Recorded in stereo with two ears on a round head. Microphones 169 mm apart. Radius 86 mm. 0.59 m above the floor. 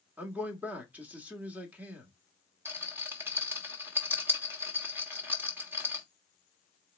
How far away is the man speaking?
About 1.0 m.